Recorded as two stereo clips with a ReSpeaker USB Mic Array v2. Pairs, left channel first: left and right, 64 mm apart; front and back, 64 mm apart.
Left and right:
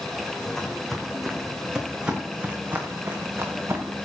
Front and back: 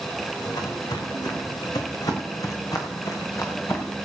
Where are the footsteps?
10° left, 2.5 m; by 3.9 s 45° right, 2.5 m.